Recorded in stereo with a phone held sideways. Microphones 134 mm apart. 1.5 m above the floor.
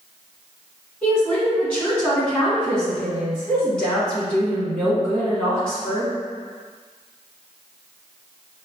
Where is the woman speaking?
10° left (ahead or behind), 1.9 m.